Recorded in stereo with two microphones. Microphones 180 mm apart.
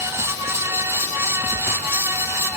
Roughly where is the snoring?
No snoring in this recording.